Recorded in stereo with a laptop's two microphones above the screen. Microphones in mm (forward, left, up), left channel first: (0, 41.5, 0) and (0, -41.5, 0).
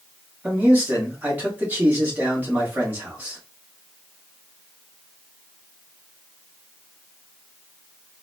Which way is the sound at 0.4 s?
25° right (ahead or behind).